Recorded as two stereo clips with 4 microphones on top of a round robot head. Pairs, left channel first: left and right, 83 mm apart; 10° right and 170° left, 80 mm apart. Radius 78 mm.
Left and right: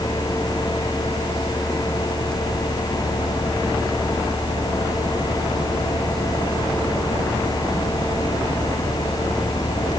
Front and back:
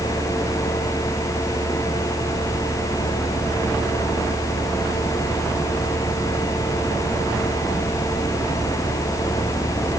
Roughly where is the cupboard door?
No cupboard door in this recording.